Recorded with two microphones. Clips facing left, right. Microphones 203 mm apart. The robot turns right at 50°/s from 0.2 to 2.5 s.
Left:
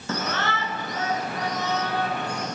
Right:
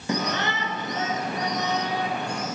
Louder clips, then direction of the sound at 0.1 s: Right 2 dB; 15° right (ahead or behind).